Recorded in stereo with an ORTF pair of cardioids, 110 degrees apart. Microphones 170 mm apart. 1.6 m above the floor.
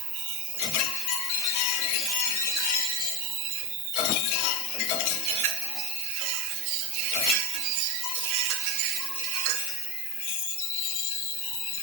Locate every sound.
0.0 s an insect: 60° right, 1.4 m